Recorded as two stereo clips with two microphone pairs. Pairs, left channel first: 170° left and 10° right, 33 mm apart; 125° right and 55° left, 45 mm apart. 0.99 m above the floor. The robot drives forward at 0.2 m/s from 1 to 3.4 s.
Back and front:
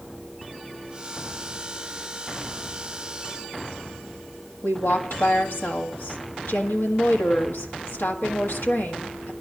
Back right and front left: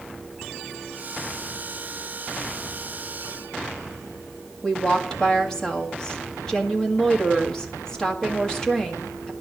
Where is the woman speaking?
160° left, 1.8 m.